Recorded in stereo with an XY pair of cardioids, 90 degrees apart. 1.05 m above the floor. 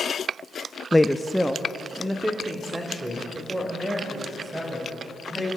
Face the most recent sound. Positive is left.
turn(degrees=-15)